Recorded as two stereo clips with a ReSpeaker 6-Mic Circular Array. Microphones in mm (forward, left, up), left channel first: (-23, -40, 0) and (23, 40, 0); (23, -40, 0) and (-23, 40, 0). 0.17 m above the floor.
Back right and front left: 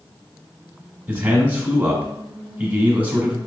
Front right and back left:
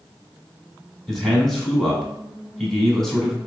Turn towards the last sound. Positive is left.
turn(degrees=15)